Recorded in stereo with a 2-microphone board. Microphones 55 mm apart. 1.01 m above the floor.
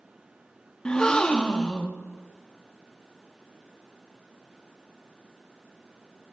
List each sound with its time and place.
0.8 s a gasp: 15° left (ahead or behind), 1.0 m